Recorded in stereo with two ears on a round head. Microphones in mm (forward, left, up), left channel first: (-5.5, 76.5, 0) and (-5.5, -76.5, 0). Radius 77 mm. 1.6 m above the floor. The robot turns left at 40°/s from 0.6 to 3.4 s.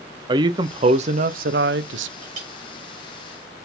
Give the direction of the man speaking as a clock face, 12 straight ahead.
1 o'clock.